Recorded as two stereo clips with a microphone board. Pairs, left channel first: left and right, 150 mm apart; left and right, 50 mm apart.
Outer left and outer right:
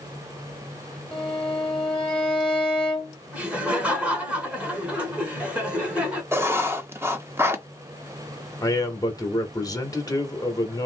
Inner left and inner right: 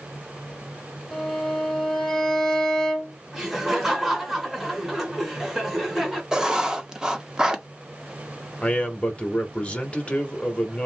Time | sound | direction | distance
1.1 | a violin | 5° left (ahead or behind) | 1.2 m
3.3 | laughter | 10° right (ahead or behind) | 1.5 m
6.3 | writing | 15° right (ahead or behind) | 0.7 m
8.6 | a man speaking | 25° left (ahead or behind) | 0.9 m